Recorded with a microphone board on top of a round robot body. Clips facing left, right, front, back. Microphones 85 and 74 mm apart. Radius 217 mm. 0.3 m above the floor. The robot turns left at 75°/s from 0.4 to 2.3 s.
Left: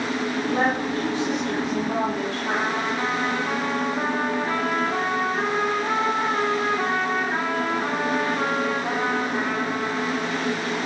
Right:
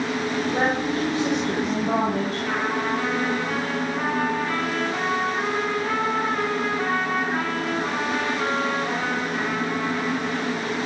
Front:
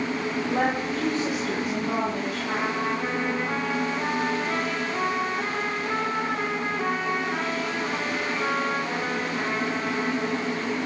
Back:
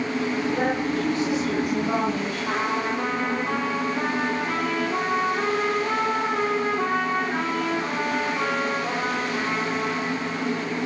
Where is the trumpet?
160° left, 6 m.